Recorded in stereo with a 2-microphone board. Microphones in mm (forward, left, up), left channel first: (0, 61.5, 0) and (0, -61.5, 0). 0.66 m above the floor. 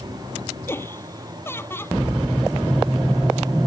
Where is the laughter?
20° left (ahead or behind).